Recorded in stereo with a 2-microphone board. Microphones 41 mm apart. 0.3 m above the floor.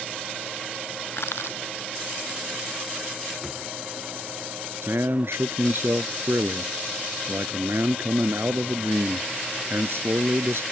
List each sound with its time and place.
1.1 s crushing: 80° left
3.4 s a drawer: centre (ahead or behind)
4.8 s a man speaking: 75° right (ahead or behind)